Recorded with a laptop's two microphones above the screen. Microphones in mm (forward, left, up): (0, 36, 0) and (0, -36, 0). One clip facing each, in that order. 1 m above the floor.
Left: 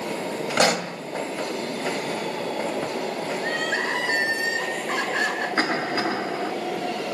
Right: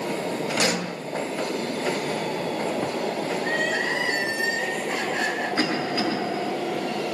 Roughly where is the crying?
Left.